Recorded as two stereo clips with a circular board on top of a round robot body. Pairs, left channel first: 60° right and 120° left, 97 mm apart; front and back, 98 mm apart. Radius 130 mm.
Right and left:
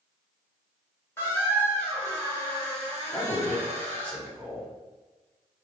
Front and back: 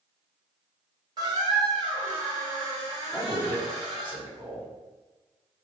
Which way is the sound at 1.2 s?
130° right.